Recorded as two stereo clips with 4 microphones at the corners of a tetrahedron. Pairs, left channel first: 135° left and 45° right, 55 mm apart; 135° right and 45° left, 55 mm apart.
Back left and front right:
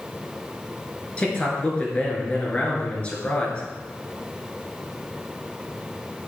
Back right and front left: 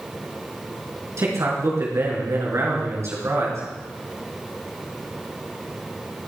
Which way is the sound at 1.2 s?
70° left.